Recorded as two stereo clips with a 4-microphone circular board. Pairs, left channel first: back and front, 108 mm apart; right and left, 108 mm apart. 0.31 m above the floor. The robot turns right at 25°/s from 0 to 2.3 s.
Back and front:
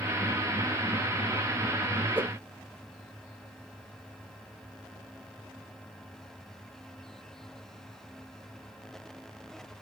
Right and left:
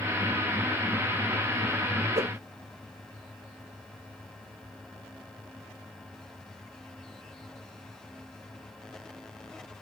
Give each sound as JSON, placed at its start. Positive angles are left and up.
{"t": 2.1, "sound": "a whoosh", "azimuth_deg": 75, "distance_m": 0.8}